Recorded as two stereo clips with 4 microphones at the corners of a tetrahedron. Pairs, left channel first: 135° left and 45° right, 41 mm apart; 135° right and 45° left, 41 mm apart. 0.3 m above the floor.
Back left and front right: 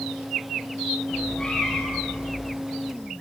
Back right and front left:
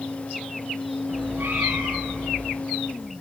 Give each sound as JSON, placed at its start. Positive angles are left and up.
{"t": 1.1, "sound": "a cat meowing", "azimuth_deg": 60, "distance_m": 7.5}